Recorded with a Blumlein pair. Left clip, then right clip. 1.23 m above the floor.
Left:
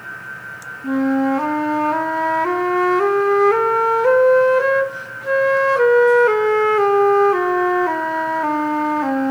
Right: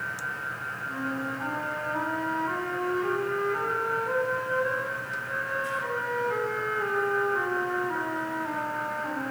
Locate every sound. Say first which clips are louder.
0.8 s a flute: left 15 dB; 45° left, 1.8 m